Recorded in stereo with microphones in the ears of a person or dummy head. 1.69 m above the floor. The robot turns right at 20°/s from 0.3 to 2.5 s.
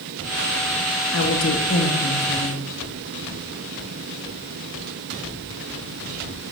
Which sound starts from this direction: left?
A woman speaking, at 1.1 s.